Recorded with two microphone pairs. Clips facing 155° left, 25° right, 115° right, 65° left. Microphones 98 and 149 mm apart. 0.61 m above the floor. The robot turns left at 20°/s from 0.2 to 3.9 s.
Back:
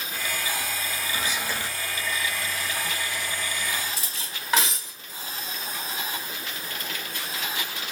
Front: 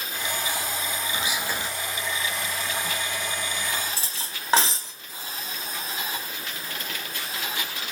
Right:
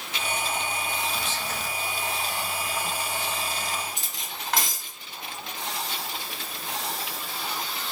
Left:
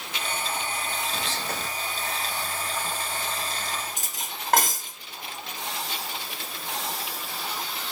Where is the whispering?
60° left, 1.4 m; by 1.7 s 50° left, 1.4 m.